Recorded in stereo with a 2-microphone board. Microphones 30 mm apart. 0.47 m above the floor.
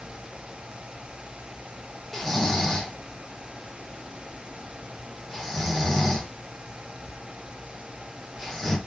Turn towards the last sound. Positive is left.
turn(degrees=5)  # may be behind; listen again after turning